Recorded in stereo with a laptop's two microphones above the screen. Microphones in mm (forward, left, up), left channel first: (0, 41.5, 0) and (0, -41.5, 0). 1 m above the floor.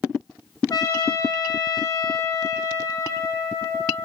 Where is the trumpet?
45° left (ahead or behind), 4.5 m.